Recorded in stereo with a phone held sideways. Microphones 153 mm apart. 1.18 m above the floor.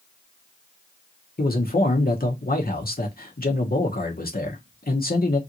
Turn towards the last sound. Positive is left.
turn(degrees=75)  # may be behind; listen again after turning